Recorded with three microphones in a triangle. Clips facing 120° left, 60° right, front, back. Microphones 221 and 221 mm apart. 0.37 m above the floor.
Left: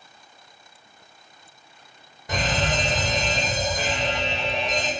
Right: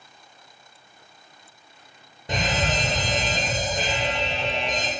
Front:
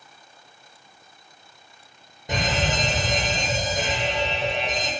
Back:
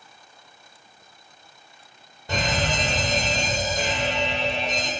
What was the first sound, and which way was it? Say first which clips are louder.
A fire alarm: even, even; 45° right.